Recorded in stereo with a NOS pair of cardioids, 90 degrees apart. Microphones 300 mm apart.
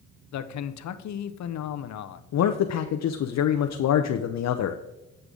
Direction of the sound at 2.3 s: 55° left.